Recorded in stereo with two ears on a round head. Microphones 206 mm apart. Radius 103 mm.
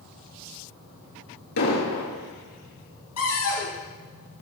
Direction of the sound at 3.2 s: 80° left.